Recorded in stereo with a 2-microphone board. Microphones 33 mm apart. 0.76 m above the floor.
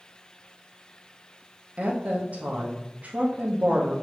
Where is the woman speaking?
45° right (ahead or behind), 1.0 m.